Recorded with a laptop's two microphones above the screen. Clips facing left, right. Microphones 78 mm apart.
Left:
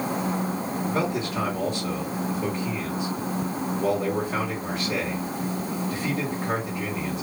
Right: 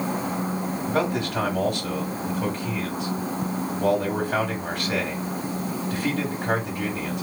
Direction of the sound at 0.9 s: 60° right (ahead or behind).